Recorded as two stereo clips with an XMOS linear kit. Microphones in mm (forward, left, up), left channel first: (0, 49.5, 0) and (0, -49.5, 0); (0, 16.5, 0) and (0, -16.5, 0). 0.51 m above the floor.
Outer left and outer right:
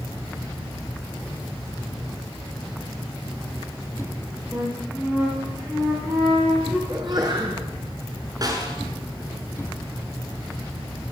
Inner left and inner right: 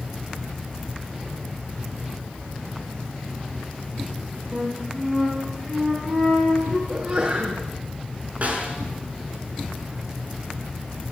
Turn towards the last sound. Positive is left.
turn(degrees=-40)  # may be behind; listen again after turning